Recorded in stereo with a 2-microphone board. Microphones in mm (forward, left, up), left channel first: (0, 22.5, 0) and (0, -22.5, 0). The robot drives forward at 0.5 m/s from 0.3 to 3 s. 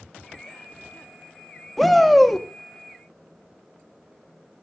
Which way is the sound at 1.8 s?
5° left (ahead or behind).